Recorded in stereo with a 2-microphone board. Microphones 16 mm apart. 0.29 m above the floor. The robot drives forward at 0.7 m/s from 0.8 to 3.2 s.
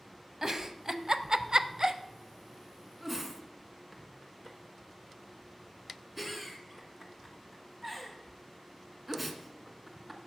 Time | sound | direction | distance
0.4 | a giggle | 30° right (ahead or behind) | 0.6 m